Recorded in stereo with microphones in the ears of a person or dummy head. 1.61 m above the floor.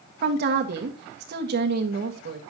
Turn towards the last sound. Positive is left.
turn(degrees=-60)  # may be behind; listen again after turning